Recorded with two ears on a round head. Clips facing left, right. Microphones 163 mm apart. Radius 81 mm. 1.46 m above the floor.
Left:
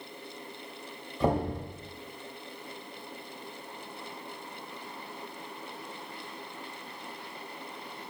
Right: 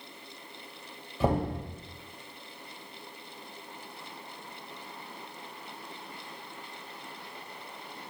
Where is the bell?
No bell in this recording.